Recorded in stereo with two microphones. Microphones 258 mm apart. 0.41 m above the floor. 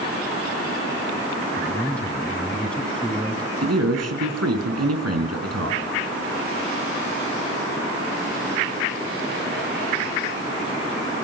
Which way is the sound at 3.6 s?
75° right (ahead or behind).